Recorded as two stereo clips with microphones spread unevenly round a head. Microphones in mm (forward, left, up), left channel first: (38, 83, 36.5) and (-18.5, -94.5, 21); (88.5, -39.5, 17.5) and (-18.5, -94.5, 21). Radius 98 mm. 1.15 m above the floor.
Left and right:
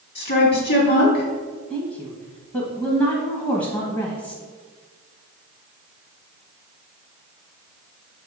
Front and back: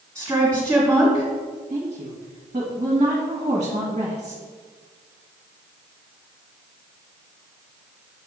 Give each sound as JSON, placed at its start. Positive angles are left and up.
{"t": 0.1, "sound": "a woman speaking", "azimuth_deg": 115, "distance_m": 2.0}
{"t": 1.7, "sound": "a woman speaking", "azimuth_deg": 135, "distance_m": 1.0}